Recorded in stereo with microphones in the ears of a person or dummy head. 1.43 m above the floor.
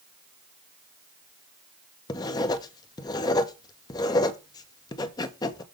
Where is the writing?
20° left (ahead or behind), 0.8 m.